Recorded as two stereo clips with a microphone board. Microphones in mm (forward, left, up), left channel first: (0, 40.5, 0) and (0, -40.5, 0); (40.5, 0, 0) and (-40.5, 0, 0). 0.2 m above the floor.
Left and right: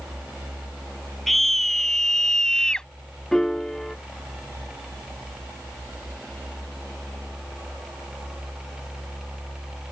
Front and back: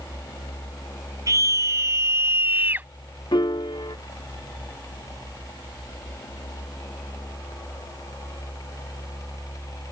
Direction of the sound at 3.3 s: 5° left.